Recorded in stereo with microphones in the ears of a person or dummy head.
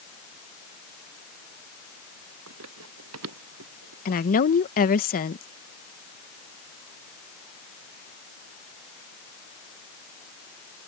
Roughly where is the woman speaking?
Left.